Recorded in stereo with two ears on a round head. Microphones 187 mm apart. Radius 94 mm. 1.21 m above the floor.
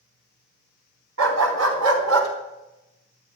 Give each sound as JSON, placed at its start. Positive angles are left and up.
{"t": 1.2, "sound": "a dog barking", "side_deg": -75, "distance_m": 3.5}